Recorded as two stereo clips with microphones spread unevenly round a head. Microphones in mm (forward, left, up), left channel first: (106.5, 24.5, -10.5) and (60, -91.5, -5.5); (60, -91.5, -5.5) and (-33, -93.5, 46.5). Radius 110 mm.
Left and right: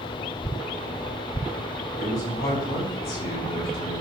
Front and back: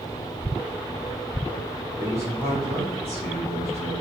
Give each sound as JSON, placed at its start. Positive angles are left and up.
{"t": 2.0, "sound": "a man speaking", "azimuth_deg": 90, "distance_m": 3.0}